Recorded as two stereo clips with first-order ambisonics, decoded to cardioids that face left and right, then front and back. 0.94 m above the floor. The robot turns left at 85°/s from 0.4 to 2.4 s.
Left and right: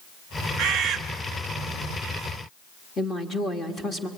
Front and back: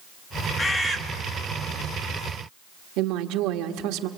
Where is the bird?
85° right, 0.8 m; by 1.0 s 115° right, 0.8 m.